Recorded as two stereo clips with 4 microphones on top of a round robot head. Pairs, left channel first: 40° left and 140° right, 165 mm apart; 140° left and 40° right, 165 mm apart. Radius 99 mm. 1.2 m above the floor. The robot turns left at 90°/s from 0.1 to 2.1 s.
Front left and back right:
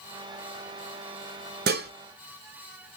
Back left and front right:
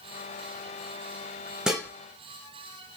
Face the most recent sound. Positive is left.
turn(degrees=-165)